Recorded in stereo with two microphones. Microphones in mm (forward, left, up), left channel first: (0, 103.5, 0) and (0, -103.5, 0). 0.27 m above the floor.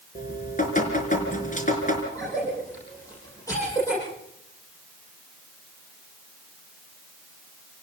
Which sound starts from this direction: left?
Dripping, at 0.1 s.